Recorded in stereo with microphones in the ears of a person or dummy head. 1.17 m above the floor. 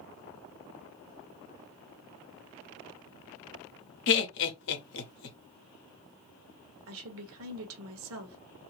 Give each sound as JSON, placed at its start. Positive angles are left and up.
{"t": 4.1, "sound": "laughter", "side_deg": 55, "distance_m": 0.8}
{"t": 6.9, "sound": "a woman speaking", "side_deg": -65, "distance_m": 1.1}